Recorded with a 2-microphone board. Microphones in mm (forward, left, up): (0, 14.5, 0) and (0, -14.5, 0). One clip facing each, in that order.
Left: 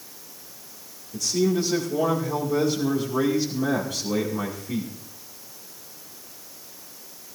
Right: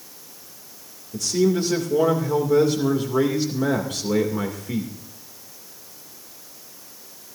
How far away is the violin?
I don't hear a violin.